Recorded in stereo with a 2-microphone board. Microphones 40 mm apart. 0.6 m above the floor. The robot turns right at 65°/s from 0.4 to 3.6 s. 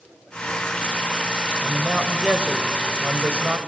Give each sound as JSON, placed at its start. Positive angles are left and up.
{"t": 1.6, "sound": "a man speaking", "azimuth_deg": 165, "distance_m": 2.0}